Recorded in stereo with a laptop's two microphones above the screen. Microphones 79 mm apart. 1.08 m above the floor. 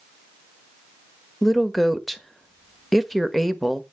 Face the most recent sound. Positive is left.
turn(degrees=0)  # may be behind; listen again after turning